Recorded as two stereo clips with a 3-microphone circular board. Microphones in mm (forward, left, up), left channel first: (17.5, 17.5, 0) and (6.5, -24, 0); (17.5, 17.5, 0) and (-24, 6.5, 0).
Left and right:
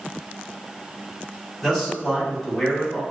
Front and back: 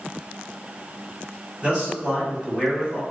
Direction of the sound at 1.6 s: 165° left.